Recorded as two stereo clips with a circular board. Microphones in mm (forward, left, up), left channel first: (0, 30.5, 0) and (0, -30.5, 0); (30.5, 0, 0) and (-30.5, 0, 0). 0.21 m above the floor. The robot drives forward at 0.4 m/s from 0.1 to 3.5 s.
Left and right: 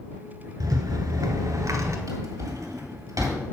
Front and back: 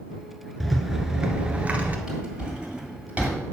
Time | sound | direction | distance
0.6 | a rattle | 90° right | 0.9 m
2.1 | a drawer | 105° right | 2 m